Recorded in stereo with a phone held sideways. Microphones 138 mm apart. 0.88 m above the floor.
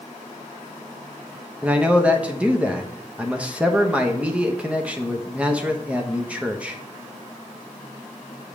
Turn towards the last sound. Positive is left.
turn(degrees=-10)  # may be behind; listen again after turning